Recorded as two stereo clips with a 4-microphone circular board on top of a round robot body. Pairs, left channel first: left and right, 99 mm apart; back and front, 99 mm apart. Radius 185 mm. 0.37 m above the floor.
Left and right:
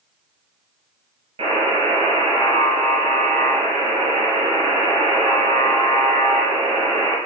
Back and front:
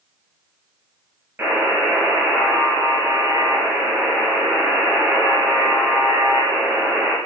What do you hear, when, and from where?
1.4 s a buzzer: 70° right, 6 m